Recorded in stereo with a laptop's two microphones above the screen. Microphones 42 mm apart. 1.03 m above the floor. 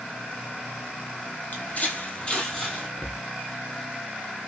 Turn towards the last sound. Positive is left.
turn(degrees=45)  # may be behind; listen again after turning